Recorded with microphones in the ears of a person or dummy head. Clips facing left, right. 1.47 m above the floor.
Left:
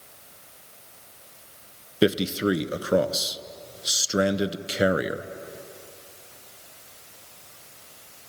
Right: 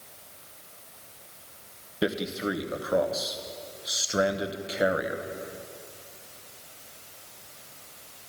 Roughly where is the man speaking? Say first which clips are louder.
Left 7 dB; left.